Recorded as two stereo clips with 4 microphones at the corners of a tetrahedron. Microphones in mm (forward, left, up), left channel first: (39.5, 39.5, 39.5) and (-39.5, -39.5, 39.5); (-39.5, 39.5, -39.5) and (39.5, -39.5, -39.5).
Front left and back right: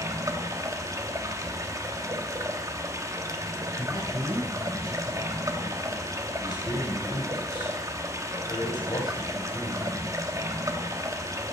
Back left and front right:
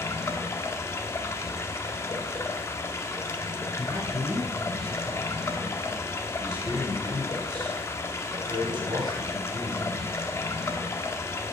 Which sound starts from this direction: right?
A man speaking, at 3.8 s.